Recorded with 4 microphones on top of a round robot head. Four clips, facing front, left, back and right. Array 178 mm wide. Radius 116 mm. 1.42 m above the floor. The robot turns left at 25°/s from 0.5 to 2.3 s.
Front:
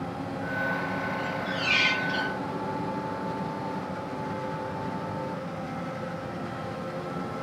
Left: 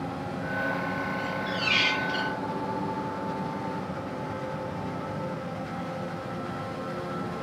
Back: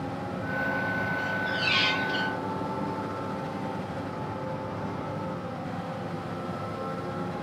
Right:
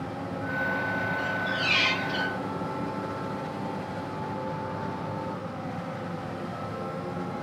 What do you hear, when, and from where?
1.2 s a squeak: 140° left, 1.2 m; by 2.3 s 115° left, 1.2 m